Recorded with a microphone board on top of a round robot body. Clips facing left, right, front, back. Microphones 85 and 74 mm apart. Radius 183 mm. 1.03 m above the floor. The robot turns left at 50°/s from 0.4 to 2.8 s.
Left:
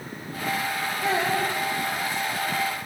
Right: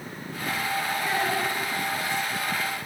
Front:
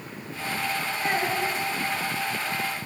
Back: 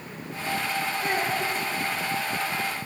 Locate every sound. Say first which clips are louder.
1.0 s a child speaking: left 5 dB, front 3 dB; 75° left, 6.5 m; by 1.5 s 50° left, 6.5 m